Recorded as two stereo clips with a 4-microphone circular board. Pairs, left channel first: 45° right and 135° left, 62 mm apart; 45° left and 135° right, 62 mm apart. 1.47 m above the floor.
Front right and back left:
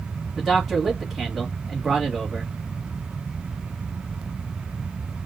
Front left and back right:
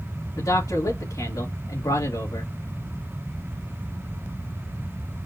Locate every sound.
0.4 s a man speaking: 50° left, 2.5 m